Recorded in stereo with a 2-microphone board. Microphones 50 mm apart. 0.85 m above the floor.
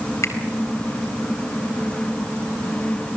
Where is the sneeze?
I don't hear a sneeze.